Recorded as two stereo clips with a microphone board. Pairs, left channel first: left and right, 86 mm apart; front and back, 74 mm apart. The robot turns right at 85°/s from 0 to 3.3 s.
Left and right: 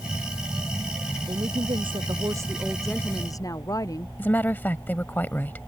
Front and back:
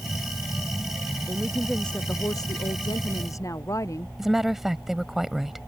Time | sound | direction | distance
1.3 | a woman speaking | 130° right | ?
4.2 | a woman speaking | 100° left | ?